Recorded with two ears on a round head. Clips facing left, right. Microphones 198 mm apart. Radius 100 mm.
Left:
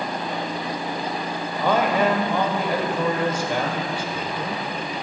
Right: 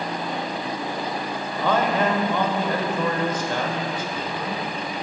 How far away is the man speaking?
About 1.2 m.